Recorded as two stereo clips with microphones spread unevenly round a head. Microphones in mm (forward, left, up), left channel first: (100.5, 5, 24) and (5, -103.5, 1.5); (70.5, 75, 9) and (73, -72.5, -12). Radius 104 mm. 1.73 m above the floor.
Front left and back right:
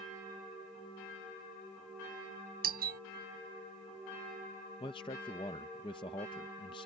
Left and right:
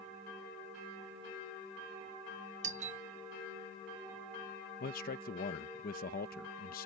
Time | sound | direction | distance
2.6 | a doorbell | 140° right | ?
4.8 | a man speaking | 110° left | ?